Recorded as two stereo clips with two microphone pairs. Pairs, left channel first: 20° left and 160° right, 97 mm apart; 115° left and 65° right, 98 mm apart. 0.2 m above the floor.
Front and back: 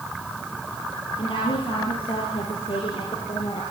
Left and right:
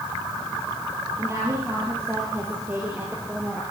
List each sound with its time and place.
1.2 s a woman speaking: 5° right, 5 m; by 3.6 s 10° left, 4.5 m